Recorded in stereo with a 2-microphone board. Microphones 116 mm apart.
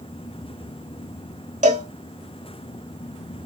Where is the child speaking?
I don't hear a child speaking.